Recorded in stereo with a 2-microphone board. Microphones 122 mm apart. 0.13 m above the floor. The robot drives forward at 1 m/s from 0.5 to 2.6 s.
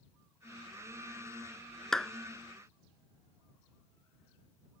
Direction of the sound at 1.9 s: 5° left (ahead or behind).